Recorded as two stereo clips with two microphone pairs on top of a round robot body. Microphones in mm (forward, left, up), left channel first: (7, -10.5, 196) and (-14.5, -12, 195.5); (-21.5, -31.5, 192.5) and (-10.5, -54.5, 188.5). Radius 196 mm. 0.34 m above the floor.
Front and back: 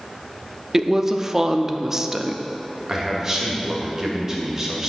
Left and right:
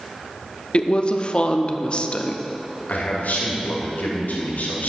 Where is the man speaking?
120° left, 2.5 m.